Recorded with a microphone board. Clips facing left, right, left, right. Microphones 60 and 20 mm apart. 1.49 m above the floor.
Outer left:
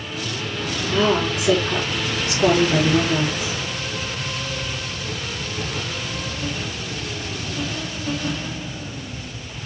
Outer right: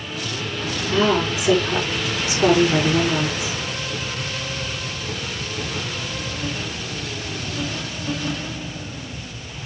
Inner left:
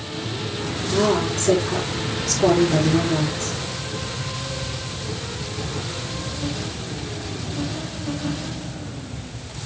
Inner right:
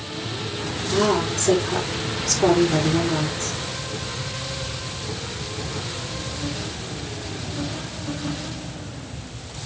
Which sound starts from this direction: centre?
A woman speaking, at 0.9 s.